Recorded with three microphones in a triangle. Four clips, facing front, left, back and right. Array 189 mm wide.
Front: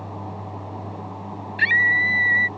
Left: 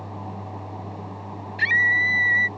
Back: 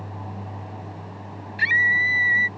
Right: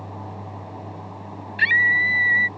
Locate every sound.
1.6 s a scream: 60° right